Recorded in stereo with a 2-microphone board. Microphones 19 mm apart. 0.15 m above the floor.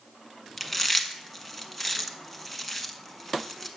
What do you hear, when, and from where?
0.6 s chewing: centre (ahead or behind), 0.9 m